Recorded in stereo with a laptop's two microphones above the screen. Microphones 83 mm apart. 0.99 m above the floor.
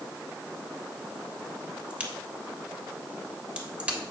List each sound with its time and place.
1.9 s a crack: 15° right (ahead or behind), 3 m